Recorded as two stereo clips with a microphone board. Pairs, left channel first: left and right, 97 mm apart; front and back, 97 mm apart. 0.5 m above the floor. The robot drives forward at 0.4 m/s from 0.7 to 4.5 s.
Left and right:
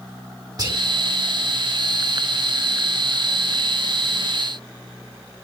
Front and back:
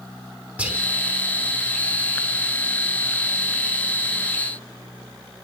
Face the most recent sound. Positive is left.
turn(degrees=-160)